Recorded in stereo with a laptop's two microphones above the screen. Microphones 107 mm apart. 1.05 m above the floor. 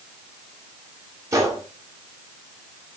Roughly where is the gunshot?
Right.